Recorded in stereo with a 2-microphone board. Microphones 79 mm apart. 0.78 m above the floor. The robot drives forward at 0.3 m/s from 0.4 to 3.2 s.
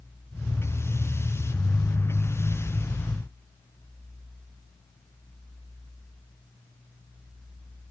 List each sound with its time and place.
Only background noise.